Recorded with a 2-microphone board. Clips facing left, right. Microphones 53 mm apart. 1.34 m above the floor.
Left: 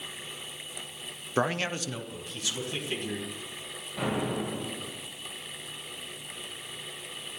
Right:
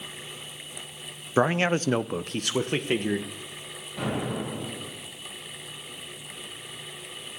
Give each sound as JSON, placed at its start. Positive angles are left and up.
{"t": 1.4, "sound": "a man speaking", "side_deg": -15, "distance_m": 0.7}
{"t": 4.0, "sound": "an explosion", "side_deg": 5, "distance_m": 6.5}